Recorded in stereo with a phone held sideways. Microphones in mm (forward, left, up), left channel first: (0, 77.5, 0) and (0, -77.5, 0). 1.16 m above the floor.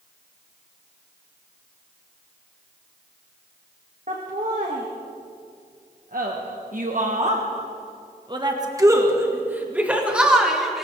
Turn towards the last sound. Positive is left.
turn(degrees=0)  # may be behind; listen again after turning